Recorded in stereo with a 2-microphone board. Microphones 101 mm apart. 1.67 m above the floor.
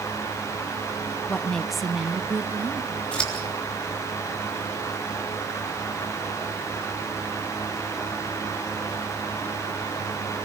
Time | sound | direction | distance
1.3 | a woman speaking | 15° left (ahead or behind) | 0.7 m
3.1 | scissors | 10° left (ahead or behind) | 3.5 m